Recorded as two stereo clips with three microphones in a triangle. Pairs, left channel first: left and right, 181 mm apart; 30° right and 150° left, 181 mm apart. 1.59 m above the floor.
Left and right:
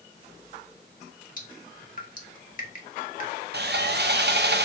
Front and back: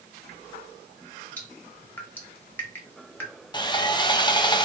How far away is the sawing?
About 0.5 m.